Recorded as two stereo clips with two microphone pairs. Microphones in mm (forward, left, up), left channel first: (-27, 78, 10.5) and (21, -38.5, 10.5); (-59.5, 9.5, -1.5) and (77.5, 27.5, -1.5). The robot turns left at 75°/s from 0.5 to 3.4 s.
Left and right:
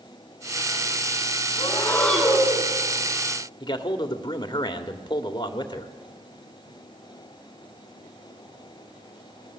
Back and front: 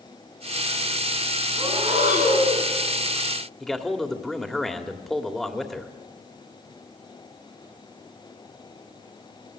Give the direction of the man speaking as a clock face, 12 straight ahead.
9 o'clock.